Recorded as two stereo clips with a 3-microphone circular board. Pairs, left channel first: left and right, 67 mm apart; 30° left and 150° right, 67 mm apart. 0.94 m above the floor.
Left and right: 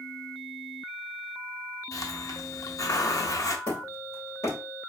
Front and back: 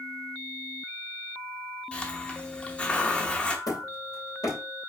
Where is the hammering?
50° left, 3 m.